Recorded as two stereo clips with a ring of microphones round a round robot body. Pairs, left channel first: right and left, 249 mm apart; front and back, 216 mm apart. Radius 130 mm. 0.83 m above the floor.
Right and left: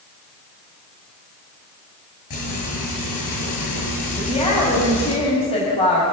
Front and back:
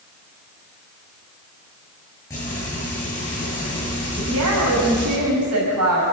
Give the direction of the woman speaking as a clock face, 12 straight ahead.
5 o'clock.